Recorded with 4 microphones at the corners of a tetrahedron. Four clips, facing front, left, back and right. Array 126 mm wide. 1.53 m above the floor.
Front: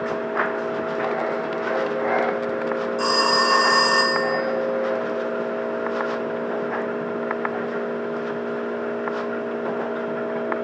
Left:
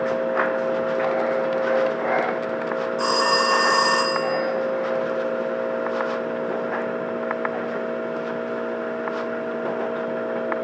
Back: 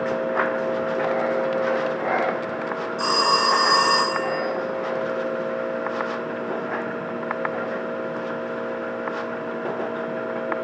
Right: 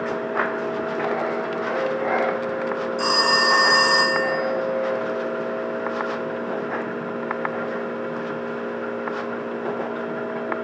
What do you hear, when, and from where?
3.0 s a phone ringing: 60° left, 1.4 m